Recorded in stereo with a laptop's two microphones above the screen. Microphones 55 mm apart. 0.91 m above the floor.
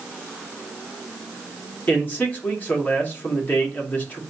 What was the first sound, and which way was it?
A man speaking, 30° left (ahead or behind).